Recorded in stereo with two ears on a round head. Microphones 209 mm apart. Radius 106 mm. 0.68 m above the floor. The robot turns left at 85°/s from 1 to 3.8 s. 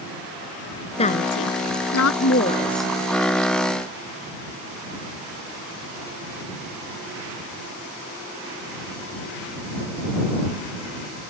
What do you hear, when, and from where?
1.0 s a woman speaking: 25° left (ahead or behind); by 2.9 s 5° right (ahead or behind)